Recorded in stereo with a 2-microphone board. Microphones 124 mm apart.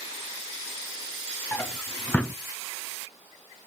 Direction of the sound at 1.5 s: 10° left (ahead or behind).